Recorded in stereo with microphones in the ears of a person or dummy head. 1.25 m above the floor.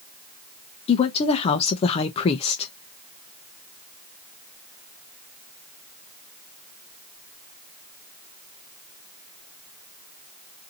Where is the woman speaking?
35° left (ahead or behind), 0.6 m.